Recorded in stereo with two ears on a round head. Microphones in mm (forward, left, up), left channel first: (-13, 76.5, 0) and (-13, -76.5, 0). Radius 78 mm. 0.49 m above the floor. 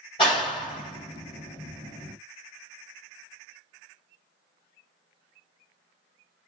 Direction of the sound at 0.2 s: 30° left (ahead or behind).